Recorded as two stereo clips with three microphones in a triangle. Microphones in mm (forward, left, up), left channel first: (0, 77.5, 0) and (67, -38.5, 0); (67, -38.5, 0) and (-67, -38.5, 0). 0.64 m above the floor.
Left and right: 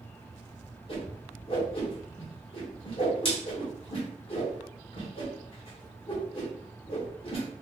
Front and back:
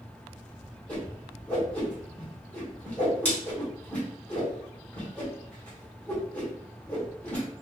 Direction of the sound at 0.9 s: 80° left.